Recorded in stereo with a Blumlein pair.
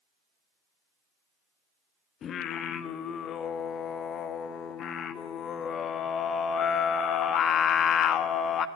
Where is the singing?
25° left, 1.6 m.